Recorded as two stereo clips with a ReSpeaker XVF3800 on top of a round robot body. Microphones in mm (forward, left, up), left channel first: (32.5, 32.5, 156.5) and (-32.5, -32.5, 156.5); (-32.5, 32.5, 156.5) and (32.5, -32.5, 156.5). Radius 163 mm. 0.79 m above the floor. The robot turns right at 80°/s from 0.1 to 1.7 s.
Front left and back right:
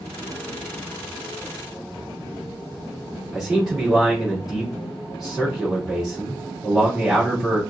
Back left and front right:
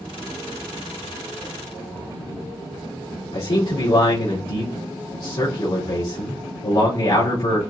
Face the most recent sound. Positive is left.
turn(degrees=135)